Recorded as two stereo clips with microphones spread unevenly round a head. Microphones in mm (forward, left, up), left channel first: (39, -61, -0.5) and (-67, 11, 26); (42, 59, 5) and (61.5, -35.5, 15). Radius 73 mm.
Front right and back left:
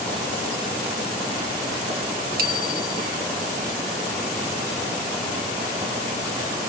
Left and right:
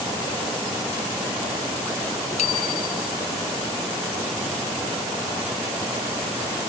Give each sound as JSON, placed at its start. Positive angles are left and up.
{"t": 2.4, "sound": "a bicycle bell", "azimuth_deg": 150}